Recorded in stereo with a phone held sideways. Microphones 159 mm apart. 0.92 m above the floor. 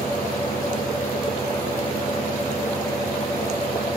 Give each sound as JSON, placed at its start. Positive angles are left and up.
{"t": 0.0, "sound": "a fan", "side_deg": 20, "distance_m": 7.0}